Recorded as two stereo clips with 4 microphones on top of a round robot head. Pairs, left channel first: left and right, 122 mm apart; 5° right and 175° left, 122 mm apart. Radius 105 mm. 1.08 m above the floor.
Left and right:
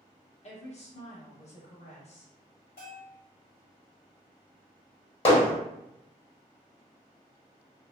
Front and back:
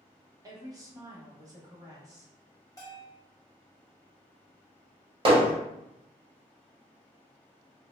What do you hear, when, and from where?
0.4 s a woman speaking: 115° left, 1.2 m
2.8 s a bell: 60° left, 1.1 m
5.2 s hammering: 130° left, 1.2 m